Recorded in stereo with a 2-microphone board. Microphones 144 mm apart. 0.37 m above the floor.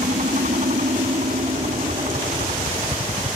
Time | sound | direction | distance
0.0 | a helicopter | 60° right (ahead or behind) | ?